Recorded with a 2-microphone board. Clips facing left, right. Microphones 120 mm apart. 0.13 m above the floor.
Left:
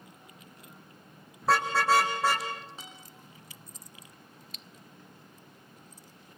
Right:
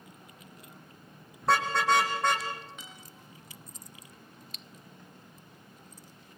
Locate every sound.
1.4 s a car horn: centre (ahead or behind), 4 m; by 2.5 s 5° left (ahead or behind), 4.5 m
2.8 s a guitar: 30° left (ahead or behind), 7.5 m